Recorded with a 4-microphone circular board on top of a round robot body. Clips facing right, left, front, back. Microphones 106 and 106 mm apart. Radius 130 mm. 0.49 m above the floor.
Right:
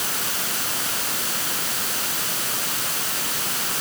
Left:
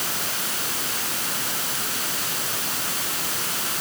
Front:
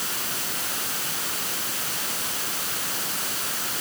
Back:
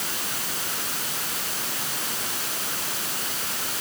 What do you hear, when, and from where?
Only background noise.